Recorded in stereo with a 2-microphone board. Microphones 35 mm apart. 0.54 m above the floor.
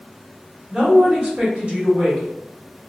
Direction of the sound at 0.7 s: 35° right (ahead or behind).